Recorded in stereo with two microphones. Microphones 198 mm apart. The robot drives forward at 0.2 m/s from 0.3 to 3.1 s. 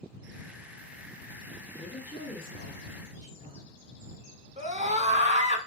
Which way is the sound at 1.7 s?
50° left (ahead or behind).